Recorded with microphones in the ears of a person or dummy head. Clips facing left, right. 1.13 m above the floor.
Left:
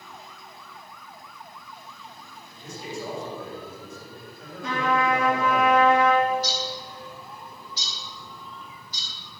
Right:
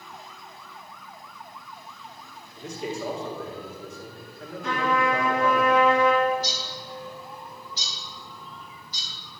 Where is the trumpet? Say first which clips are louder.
Left 1 dB; 75° left (ahead or behind), 4 m.